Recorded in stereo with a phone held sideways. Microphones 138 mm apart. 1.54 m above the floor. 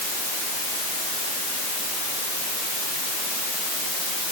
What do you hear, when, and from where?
Only background noise.